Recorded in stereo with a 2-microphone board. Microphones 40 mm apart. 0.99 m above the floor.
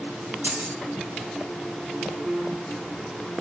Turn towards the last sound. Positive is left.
turn(degrees=-75)  # may be behind; listen again after turning